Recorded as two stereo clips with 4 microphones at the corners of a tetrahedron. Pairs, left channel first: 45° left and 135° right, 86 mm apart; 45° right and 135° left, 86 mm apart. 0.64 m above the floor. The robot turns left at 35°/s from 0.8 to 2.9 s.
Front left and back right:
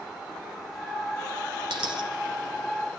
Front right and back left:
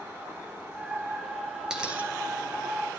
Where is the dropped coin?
145° right, 2 m; by 2.1 s 155° right, 2 m.